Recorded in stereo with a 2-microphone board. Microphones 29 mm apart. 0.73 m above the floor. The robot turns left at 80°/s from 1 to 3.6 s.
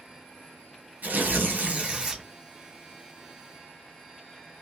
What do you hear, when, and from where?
1.0 s tearing paper: 70° right, 1.5 m; by 2.2 s 170° right, 1.5 m